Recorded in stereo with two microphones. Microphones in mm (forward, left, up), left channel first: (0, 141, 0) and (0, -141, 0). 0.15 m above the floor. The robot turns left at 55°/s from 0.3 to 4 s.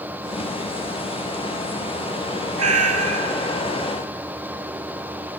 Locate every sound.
2.6 s a cat meowing: 75° right, 0.8 m; by 3.3 s 115° right, 0.8 m